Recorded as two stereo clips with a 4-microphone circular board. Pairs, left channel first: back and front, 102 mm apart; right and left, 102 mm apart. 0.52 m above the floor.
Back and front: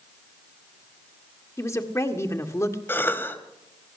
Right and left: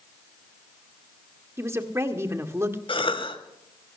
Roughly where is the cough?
Right.